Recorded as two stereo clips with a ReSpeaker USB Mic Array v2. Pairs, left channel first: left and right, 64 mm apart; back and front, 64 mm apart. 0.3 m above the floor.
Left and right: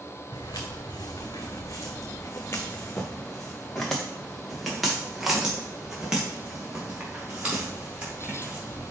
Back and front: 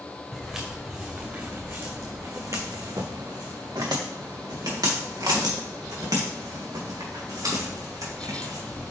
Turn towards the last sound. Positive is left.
turn(degrees=-20)